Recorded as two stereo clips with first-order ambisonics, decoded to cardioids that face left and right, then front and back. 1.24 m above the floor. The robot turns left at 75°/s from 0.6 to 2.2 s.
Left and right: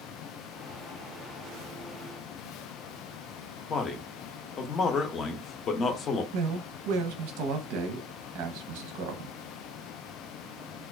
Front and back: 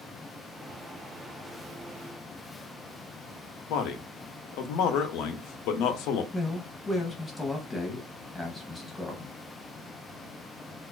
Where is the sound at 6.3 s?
85° right, 0.7 m.